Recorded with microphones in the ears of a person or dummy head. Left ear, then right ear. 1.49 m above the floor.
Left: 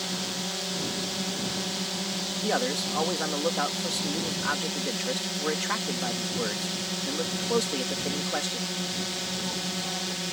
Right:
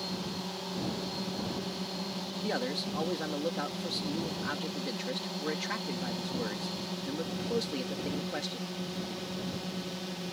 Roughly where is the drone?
Left.